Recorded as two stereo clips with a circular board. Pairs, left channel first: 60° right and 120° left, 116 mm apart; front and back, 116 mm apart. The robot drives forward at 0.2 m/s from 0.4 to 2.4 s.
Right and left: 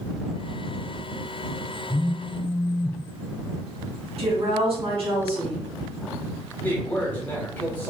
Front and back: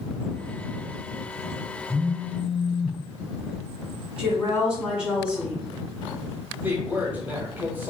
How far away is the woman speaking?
About 1.9 m.